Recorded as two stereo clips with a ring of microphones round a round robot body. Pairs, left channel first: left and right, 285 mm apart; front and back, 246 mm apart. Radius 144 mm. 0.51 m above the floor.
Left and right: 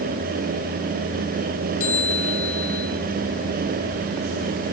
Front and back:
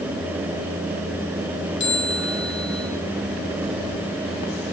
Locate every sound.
1.8 s a bell: 45° left, 9.5 m